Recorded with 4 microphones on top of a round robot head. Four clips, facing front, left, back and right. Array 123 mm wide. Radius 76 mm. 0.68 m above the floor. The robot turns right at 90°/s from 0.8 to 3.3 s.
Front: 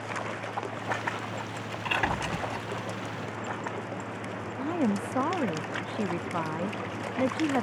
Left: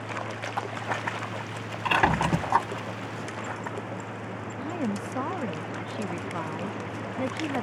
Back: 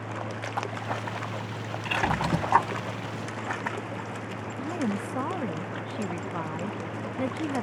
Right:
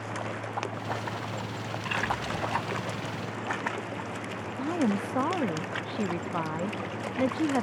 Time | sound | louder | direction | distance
1.9 | a squeak | left 9 dB, back 3 dB | 85° left | ?
4.6 | a woman speaking | right 4 dB, front 2 dB | 45° right | ?